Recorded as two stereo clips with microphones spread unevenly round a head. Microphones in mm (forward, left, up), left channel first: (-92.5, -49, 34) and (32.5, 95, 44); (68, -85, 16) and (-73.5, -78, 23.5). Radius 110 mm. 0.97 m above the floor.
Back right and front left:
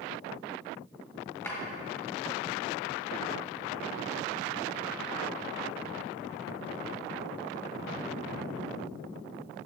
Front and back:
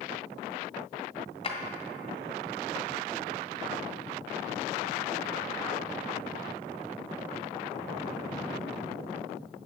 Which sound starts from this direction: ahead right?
A drawer, at 1.4 s.